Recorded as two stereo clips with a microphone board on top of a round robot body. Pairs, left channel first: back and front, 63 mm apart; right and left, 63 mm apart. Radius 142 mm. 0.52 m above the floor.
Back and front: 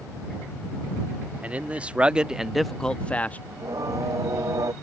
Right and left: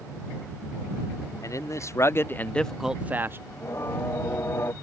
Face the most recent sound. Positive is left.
turn(degrees=-35)